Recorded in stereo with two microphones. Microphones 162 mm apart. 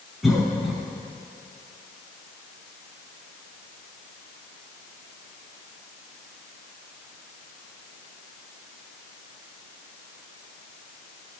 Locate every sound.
0.2 s a cough: centre (ahead or behind), 1.5 m